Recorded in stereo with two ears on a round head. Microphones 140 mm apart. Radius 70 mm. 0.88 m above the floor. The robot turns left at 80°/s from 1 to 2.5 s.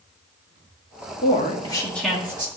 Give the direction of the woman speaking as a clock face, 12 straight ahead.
10 o'clock.